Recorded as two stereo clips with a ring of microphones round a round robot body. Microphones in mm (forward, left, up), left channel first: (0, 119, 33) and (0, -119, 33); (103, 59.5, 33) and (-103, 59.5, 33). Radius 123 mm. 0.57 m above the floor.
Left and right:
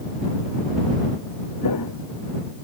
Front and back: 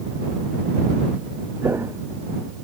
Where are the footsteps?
100° left.